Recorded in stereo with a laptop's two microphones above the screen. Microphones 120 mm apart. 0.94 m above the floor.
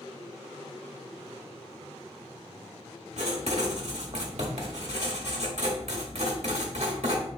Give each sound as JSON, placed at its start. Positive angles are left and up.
{"t": 3.2, "sound": "writing", "side_deg": -70, "distance_m": 2.0}